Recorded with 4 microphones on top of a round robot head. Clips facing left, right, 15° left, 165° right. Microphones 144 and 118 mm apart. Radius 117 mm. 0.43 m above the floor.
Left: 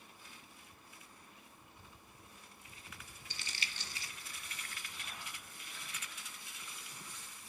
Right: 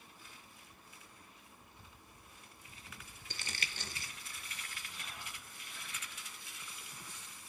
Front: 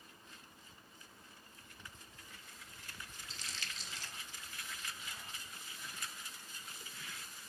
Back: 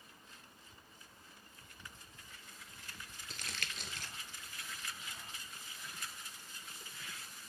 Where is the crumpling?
130° right, 0.6 m.